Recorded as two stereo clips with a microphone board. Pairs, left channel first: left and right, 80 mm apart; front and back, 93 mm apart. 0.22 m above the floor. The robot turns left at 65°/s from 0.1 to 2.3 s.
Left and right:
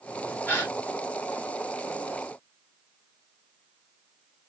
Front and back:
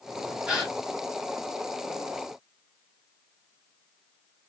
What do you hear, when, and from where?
0.5 s a gasp: 110° left, 1.4 m; by 0.7 s 95° left, 1.4 m